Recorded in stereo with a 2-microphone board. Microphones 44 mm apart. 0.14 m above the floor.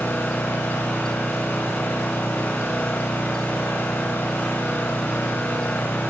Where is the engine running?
55° left (ahead or behind), 5.5 m.